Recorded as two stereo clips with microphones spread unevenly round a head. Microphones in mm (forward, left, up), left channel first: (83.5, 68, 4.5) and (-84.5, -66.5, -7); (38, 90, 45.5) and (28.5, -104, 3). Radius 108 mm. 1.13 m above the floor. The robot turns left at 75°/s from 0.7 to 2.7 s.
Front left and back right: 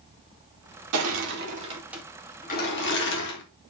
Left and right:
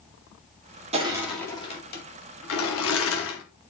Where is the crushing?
150° right, 2 m; by 3.4 s 80° left, 2 m.